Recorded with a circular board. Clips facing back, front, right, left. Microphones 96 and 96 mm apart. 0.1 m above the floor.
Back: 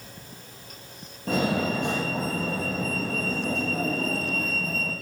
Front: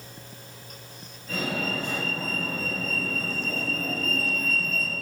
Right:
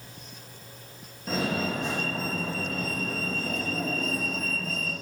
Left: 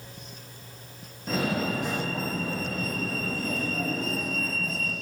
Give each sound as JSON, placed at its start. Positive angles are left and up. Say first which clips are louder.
{"t": 1.3, "sound": "a fire alarm", "louder": "back 6 dB, left 1 dB", "azimuth_deg": 180, "distance_m": 7.5}